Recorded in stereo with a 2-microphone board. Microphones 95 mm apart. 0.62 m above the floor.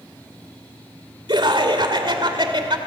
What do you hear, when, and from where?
1.3 s laughter: 55° right (ahead or behind), 2.5 m